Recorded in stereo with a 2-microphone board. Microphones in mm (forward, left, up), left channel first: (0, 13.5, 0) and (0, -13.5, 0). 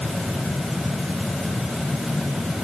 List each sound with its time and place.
Only background noise.